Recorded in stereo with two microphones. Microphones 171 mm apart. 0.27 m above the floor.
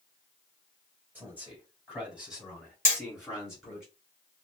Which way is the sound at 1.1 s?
10° right (ahead or behind).